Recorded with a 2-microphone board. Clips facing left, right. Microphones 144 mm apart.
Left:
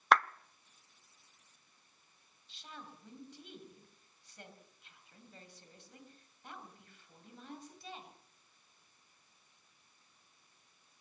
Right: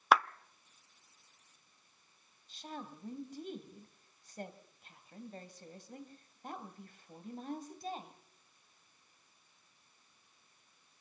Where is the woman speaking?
45° right (ahead or behind), 3 m.